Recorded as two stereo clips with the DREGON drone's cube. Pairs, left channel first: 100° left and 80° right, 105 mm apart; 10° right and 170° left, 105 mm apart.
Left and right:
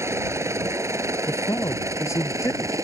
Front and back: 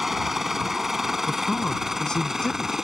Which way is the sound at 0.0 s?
105° right.